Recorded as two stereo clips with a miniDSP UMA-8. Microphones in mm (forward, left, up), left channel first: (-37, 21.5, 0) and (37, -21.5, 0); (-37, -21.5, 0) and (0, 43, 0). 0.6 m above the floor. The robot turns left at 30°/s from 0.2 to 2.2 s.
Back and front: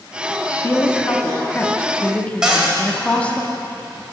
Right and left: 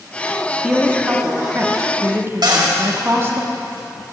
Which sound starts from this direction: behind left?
A woman speaking, at 0.6 s.